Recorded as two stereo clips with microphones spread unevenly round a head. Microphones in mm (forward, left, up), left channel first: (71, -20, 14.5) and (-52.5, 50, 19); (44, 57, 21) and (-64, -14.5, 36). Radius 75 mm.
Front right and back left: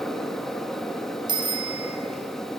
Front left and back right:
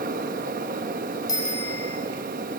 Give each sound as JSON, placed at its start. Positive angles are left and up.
{"t": 0.0, "sound": "a fan", "azimuth_deg": -115, "distance_m": 1.2}
{"t": 1.3, "sound": "a bicycle bell", "azimuth_deg": 95, "distance_m": 4.0}